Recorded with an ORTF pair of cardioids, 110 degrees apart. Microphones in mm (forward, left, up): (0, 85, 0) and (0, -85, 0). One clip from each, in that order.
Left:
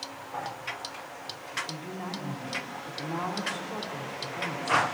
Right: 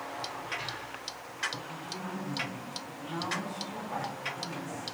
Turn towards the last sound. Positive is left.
turn(degrees=65)